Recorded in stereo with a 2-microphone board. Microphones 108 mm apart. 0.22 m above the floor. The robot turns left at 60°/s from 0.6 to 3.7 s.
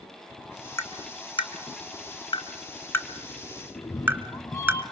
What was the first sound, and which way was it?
Tapping, 25° left (ahead or behind).